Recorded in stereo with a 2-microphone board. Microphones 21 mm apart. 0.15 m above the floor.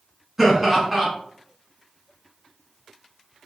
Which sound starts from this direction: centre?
Laughter, at 0.4 s.